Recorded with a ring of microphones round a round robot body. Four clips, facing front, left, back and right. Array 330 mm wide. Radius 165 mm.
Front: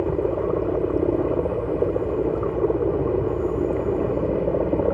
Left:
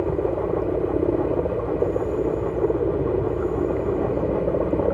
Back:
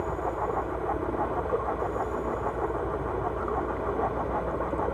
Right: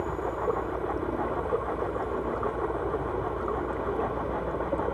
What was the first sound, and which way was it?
A helicopter, 45° left.